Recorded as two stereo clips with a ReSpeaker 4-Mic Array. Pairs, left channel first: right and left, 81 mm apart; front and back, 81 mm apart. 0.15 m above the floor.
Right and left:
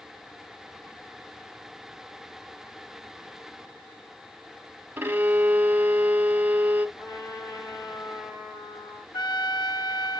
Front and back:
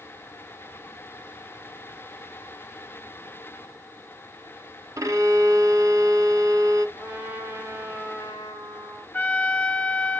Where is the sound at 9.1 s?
70° right, 0.5 m.